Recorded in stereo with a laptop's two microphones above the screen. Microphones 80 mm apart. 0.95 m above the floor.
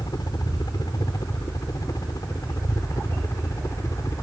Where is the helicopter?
55° left (ahead or behind); by 4.2 s 40° left (ahead or behind).